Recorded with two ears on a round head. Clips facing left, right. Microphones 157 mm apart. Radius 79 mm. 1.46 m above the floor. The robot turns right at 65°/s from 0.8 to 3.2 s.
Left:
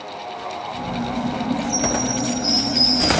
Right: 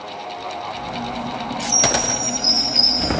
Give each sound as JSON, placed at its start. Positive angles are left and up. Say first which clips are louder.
{"t": 1.7, "sound": "a chime", "louder": "left 1 dB", "azimuth_deg": -80, "distance_m": 2.0}